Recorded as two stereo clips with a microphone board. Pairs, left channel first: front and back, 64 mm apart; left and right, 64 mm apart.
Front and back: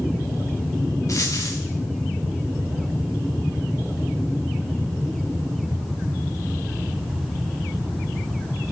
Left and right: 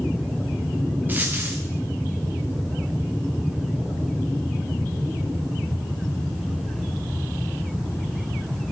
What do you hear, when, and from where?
1.1 s a dropped coin: 30° right, 2 m